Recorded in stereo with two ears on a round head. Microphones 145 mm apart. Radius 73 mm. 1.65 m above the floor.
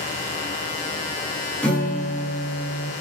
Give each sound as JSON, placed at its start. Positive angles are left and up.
{"t": 1.6, "sound": "a guitar", "side_deg": 10, "distance_m": 1.9}